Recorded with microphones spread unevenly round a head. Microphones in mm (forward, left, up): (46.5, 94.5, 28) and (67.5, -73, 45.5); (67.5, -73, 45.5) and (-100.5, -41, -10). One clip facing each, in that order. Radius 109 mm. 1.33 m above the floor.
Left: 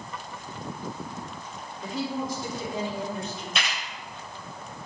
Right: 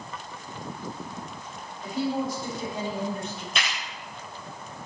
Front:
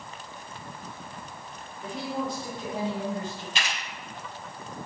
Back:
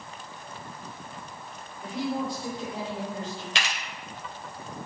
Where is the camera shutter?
170° right, 2.5 m.